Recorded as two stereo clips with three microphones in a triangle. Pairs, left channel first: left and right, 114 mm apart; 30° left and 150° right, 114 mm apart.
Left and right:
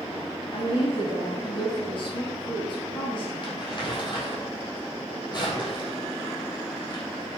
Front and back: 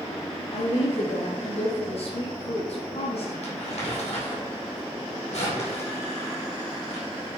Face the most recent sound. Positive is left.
turn(degrees=45)